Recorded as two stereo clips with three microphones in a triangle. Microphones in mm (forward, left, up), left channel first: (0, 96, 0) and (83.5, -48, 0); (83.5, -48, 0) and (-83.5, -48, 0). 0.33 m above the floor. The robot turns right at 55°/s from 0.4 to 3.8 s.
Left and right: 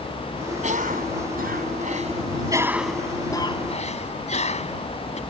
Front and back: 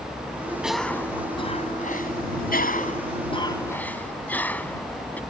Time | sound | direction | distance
0.6 | a cough | 95° right | ?